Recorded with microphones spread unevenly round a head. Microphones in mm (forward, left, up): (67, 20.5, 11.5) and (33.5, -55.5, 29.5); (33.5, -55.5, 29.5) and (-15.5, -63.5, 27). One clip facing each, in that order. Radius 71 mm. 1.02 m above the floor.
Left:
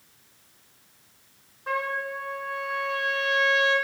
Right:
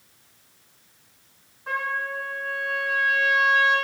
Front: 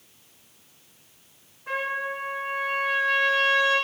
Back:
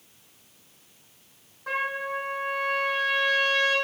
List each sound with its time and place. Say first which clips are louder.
1.7 s a trumpet: right 1 dB, even; 140° left, 3.5 m